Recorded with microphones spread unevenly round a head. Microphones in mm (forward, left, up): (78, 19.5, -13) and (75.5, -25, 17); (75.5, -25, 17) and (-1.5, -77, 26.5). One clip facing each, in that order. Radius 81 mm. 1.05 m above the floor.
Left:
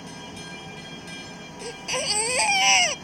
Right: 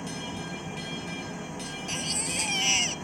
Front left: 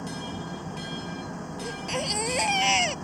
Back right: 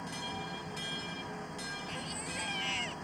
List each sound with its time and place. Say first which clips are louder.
0.0 s an engine running: right 3 dB, front left 6 dB; 25° right
1.6 s a baby crying: left 9 dB, front left 10 dB; 70° left